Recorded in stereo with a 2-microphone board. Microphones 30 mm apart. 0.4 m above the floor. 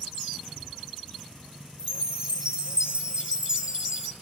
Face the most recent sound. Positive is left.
turn(degrees=-35)  # may be behind; listen again after turning